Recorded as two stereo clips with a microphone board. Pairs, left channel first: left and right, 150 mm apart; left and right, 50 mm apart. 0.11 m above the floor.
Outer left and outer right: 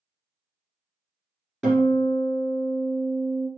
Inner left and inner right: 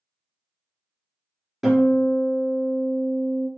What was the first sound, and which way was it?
A guitar, 5° left (ahead or behind).